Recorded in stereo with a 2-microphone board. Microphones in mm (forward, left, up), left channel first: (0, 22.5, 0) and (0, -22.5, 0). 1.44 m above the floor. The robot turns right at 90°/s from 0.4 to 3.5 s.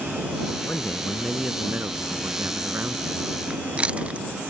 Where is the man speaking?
120° left; by 3.3 s straight ahead.